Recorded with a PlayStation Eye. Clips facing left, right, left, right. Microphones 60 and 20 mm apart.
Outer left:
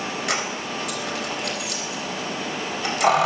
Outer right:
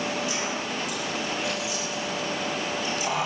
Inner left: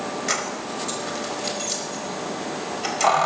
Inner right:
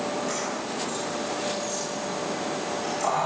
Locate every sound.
0.3 s keys jangling: 75° left (ahead or behind), 4.5 m